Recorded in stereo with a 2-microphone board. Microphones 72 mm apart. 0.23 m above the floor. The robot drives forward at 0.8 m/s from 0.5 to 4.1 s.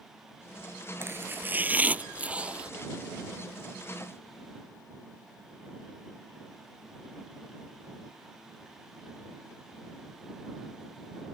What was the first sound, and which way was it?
Chopping, 35° right (ahead or behind).